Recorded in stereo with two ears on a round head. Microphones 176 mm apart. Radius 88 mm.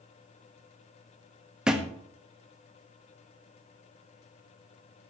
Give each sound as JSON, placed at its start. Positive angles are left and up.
{"t": 1.7, "sound": "a thud", "side_deg": -5, "distance_m": 1.1}